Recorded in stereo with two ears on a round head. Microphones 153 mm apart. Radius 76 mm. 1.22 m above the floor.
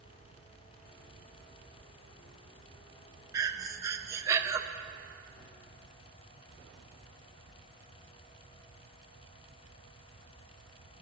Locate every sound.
3.3 s breathing: 20° right (ahead or behind), 0.6 m